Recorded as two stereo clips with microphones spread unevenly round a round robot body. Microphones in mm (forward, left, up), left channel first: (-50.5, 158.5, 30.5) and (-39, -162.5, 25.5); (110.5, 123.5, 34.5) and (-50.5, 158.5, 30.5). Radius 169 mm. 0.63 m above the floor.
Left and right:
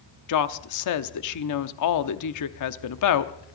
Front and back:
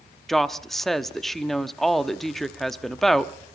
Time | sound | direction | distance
0.3 | a woman speaking | 75° left | 0.9 m